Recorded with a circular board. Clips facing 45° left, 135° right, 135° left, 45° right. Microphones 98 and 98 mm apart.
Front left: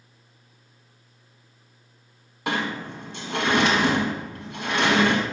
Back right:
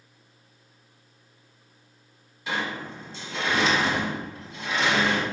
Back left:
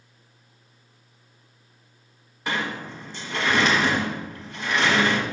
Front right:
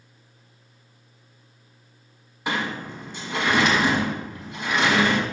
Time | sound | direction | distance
2.5 | a sliding door | 30° left | 1.3 m